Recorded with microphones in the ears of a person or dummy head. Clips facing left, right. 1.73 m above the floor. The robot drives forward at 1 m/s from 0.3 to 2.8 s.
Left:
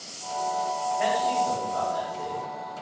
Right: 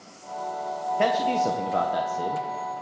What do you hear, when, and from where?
1.0 s a man speaking: 65° right (ahead or behind), 1.6 m; by 2.5 s 60° right (ahead or behind), 1.7 m